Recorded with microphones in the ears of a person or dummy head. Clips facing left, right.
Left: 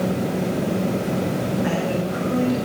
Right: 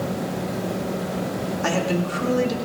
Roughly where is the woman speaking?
Right.